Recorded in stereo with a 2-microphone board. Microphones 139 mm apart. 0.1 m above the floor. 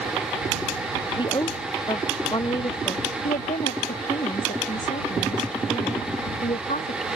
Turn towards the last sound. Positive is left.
turn(degrees=60)  # may be behind; listen again after turning